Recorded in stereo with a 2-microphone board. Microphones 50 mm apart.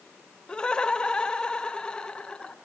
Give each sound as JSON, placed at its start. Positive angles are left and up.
{"t": 0.5, "sound": "laughter", "side_deg": 20, "distance_m": 0.9}